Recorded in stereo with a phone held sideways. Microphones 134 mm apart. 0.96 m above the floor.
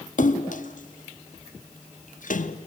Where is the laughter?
No laughter in this recording.